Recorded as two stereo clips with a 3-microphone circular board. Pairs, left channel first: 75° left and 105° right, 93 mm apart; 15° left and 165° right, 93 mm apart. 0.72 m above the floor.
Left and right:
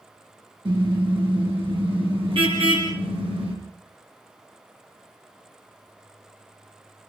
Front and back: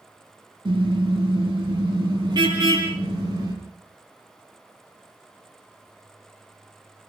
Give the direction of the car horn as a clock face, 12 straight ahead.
4 o'clock.